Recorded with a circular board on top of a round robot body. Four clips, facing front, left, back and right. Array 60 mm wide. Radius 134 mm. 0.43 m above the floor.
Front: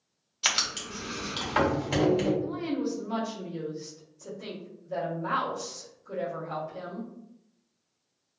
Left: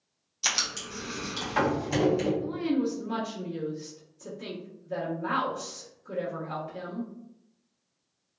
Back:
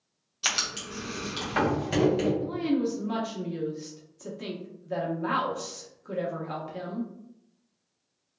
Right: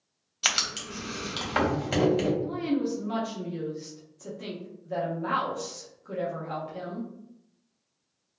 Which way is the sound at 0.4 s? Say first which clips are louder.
Right 2 dB, front 1 dB; 75° right.